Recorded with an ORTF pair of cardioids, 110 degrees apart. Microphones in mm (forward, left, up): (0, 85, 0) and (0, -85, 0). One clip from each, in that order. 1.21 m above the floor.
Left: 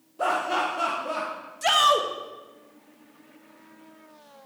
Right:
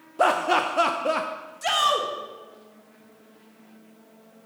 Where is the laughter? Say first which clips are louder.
Right 4 dB; 45° right, 0.6 m.